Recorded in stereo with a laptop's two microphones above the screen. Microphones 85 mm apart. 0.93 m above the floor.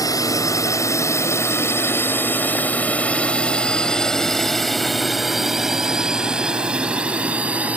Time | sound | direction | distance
0.0 | a drone | 50° left (ahead or behind) | ?